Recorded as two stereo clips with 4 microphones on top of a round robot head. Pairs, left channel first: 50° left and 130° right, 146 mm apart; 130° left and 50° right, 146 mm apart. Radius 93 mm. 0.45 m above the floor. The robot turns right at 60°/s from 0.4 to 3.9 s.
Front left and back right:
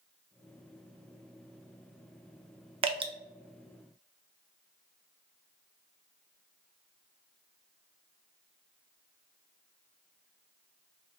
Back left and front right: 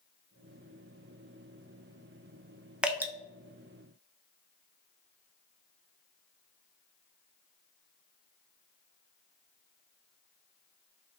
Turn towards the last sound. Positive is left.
turn(degrees=-65)